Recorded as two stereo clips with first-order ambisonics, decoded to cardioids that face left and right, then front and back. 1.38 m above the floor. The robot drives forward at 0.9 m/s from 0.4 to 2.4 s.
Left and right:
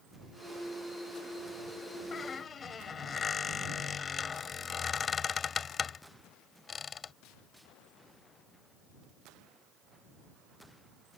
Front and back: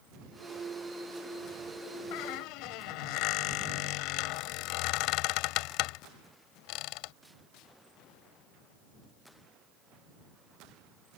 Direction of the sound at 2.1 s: 20° left.